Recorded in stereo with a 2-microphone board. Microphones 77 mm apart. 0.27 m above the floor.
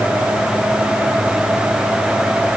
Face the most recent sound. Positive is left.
No sound to turn to.